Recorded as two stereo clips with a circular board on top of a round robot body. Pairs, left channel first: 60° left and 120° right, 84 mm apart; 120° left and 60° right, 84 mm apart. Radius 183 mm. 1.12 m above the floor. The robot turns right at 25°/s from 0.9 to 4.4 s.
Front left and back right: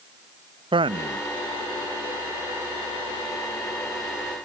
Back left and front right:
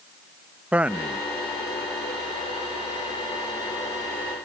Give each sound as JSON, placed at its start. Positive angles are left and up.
{"t": 0.7, "sound": "a man speaking", "azimuth_deg": -135}